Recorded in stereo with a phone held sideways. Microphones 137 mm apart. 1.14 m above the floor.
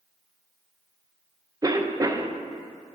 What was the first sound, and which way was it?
A cough, 25° right (ahead or behind).